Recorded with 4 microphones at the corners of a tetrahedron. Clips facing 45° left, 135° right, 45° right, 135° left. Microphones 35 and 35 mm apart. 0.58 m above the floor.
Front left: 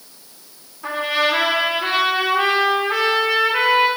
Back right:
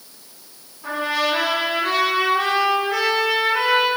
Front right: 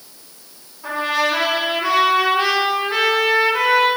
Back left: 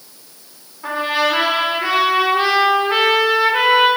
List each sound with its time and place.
0.8 s a trumpet: 80° left, 2 m